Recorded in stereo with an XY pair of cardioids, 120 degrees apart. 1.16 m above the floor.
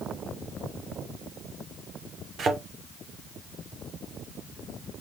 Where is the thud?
50° right, 1.8 m.